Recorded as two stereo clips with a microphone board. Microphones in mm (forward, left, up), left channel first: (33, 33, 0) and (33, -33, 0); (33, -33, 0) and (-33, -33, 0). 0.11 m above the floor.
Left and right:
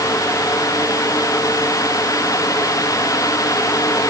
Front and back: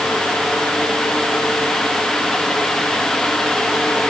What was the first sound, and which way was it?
Only background noise.